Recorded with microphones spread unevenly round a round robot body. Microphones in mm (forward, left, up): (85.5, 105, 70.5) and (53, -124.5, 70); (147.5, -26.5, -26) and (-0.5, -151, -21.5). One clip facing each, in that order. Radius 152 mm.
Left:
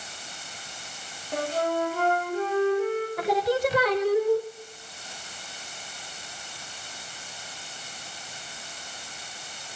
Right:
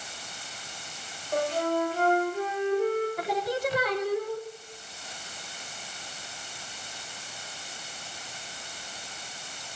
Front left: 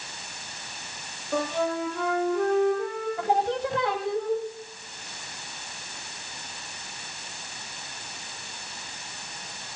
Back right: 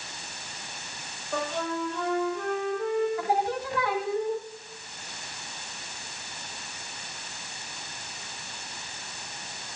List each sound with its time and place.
1.3 s a flute: 95° left, 7 m
3.2 s singing: 115° left, 0.9 m